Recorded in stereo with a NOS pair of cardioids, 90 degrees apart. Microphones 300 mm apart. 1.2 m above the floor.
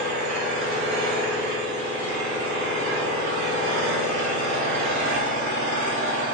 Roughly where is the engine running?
Right.